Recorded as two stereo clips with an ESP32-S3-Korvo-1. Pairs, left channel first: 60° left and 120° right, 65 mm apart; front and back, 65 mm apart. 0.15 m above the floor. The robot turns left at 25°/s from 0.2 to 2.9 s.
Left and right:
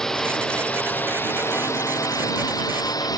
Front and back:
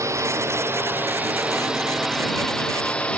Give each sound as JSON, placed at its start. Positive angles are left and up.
{"t": 0.0, "sound": "a drone", "azimuth_deg": 140}